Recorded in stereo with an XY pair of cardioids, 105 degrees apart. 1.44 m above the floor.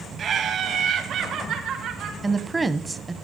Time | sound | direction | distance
0.2 | laughter | 55° right | 2 m
2.2 | a woman speaking | 20° right | 1.1 m